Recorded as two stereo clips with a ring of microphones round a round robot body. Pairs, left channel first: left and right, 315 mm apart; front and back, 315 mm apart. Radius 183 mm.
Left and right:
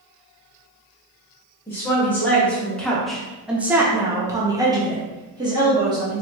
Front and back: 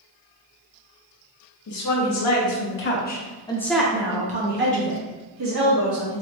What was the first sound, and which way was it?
A woman speaking, 10° left.